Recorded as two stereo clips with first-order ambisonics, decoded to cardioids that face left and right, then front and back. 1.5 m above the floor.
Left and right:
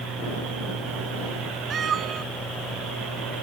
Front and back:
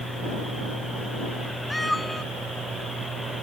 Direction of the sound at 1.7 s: 85° right.